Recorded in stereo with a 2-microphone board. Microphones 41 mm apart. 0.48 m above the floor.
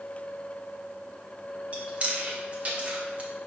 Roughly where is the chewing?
Right.